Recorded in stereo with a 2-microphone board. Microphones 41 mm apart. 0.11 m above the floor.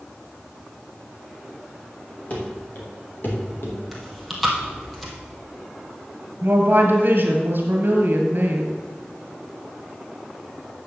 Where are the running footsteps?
35° left (ahead or behind), 3.5 m; by 3.8 s 60° left (ahead or behind), 3 m.